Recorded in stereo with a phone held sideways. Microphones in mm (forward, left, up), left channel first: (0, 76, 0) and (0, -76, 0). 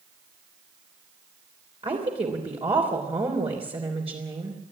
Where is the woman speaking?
40° right (ahead or behind), 3 m.